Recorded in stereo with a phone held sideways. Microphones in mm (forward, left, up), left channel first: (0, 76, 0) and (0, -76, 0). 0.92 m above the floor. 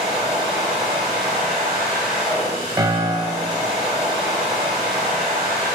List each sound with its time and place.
0.0 s a machine running: 5° right (ahead or behind), 3 m
2.8 s a piano: 25° right (ahead or behind), 0.7 m